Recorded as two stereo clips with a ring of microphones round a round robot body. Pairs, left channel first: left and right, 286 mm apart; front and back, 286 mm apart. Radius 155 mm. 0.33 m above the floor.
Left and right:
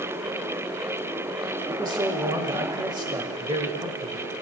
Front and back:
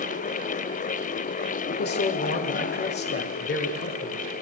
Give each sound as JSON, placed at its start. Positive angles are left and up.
{"t": 1.7, "sound": "a man speaking", "azimuth_deg": -25, "distance_m": 1.3}